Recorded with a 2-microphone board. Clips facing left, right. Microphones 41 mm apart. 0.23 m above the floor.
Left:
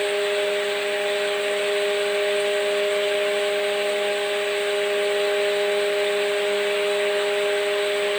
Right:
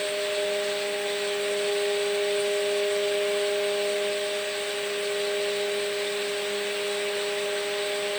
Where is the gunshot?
No gunshot in this recording.